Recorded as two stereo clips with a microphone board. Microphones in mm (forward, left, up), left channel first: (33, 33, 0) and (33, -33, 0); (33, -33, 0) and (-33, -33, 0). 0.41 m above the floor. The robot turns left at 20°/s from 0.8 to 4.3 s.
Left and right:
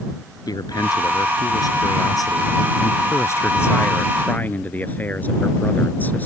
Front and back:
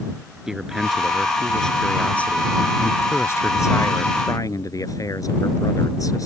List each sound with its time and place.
0.5 s a man speaking: 95° left; by 6.3 s 25° left